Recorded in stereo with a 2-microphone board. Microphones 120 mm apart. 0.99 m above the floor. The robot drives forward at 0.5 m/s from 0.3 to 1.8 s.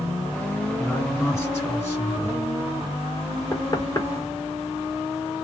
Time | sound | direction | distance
0.8 | a man speaking | 20° left (ahead or behind) | 1.3 m
3.5 | knocking | 30° left (ahead or behind) | 1.1 m